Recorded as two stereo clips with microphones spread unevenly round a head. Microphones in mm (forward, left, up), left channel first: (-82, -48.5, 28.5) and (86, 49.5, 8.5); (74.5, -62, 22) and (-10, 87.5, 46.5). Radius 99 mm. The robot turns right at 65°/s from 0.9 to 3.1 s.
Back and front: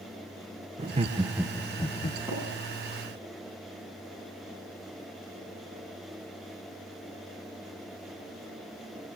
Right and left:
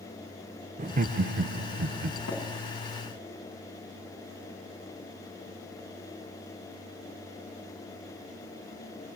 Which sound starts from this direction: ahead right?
Tapping, at 2.3 s.